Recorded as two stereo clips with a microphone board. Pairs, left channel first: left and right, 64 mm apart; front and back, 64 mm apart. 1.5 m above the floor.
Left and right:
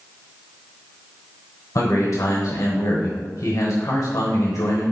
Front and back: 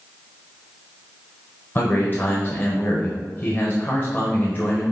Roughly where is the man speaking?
Ahead left.